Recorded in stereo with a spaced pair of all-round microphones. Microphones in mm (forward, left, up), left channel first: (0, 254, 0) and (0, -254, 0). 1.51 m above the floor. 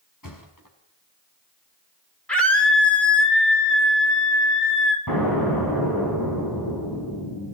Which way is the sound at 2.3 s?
Centre (ahead or behind).